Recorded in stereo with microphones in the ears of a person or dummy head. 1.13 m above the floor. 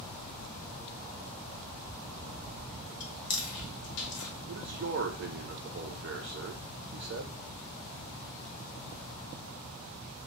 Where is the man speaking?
55° right (ahead or behind), 0.5 m.